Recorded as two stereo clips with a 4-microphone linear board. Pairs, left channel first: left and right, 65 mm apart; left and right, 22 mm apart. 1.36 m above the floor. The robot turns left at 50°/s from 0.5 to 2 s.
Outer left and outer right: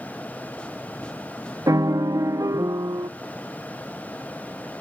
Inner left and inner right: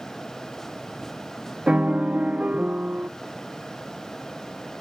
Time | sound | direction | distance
1.7 | a piano | 80° right | 0.6 m